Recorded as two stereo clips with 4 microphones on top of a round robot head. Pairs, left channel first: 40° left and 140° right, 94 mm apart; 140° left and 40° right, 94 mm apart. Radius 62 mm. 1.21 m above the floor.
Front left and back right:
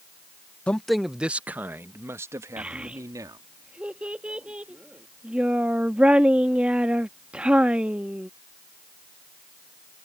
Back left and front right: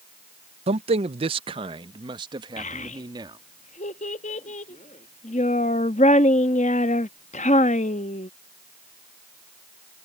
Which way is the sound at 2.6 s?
140° left.